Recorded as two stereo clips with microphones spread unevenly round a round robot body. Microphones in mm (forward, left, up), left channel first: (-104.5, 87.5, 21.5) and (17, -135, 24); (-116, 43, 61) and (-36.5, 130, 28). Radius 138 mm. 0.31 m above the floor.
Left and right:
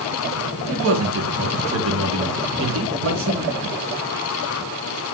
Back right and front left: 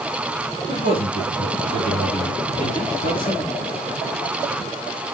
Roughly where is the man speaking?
Right.